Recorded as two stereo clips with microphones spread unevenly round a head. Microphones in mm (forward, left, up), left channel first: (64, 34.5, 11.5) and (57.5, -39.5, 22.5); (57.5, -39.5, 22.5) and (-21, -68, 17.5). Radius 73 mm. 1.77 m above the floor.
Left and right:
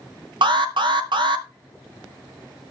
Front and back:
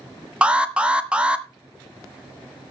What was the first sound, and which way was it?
An alarm, 85° right.